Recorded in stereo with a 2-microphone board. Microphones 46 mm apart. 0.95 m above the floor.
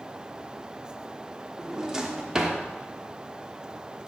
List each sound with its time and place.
1.6 s a drawer: 15° right (ahead or behind), 1.0 m